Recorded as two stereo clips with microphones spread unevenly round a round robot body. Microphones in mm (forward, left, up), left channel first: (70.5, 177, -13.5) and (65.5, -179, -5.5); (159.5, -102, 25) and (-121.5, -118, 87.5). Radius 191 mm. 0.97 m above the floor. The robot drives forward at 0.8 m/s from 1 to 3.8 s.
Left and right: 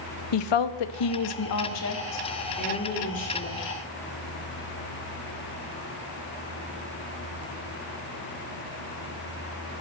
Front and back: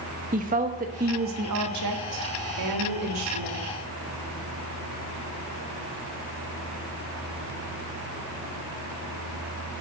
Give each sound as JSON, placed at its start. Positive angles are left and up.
{"t": 0.3, "sound": "a woman speaking", "azimuth_deg": 115, "distance_m": 0.8}